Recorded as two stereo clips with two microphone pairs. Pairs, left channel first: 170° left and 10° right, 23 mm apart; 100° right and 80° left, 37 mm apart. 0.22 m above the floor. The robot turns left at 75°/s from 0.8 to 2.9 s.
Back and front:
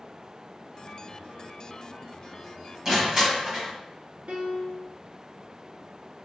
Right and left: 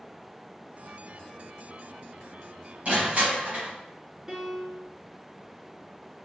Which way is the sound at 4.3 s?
5° left.